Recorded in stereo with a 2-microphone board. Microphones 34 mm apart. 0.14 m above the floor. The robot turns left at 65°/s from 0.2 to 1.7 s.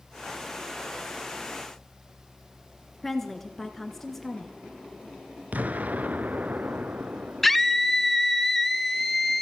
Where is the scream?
5° left (ahead or behind), 1.3 m.